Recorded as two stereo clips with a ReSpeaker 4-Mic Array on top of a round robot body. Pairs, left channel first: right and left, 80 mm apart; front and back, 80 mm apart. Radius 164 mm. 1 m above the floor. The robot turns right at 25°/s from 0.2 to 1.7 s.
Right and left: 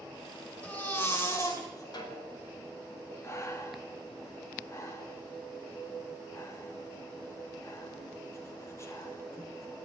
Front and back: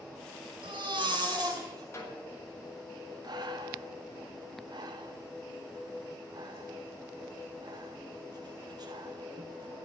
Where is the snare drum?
60° right, 3.5 m.